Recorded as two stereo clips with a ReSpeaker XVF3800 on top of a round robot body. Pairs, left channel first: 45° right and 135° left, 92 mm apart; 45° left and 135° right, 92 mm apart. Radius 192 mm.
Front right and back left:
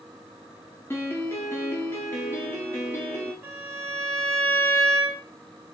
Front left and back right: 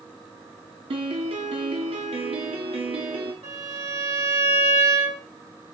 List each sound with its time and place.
0.9 s a piano: 110° right, 1.4 m
3.4 s a violin: 160° right, 3 m